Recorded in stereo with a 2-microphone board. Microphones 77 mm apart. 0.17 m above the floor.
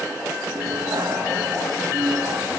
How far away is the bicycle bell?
About 6.5 m.